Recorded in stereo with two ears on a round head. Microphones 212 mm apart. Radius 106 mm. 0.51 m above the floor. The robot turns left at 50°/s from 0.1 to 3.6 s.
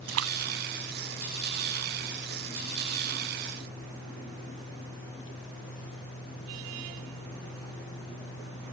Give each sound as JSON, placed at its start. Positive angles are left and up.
{"t": 0.1, "sound": "a splash", "side_deg": -60}